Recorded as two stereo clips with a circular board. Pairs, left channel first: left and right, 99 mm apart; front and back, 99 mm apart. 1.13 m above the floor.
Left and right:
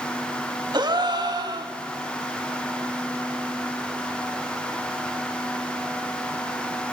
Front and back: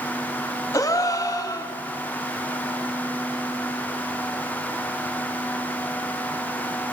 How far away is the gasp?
About 1.5 m.